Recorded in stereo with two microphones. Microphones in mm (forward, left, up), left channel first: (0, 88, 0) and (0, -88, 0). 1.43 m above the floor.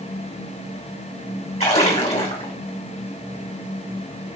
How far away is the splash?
About 1.9 m.